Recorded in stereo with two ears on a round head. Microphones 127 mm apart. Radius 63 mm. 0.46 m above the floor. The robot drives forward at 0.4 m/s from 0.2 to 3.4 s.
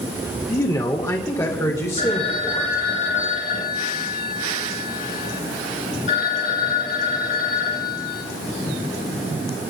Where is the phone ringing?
40° left (ahead or behind), 3.5 m; by 8.2 s 50° left (ahead or behind), 3.5 m.